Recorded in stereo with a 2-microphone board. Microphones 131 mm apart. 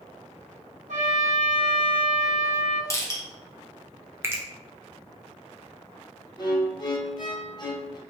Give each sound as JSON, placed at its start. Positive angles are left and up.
{"t": 0.9, "sound": "a trumpet", "side_deg": -65, "distance_m": 0.8}
{"t": 2.9, "sound": "crushing", "side_deg": 25, "distance_m": 0.9}
{"t": 4.2, "sound": "a finger snap", "side_deg": -20, "distance_m": 0.5}
{"t": 6.4, "sound": "a violin", "side_deg": 35, "distance_m": 0.7}